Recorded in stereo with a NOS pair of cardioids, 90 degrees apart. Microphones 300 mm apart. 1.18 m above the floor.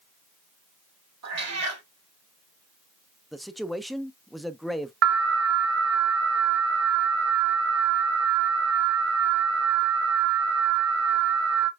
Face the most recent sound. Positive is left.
turn(degrees=-55)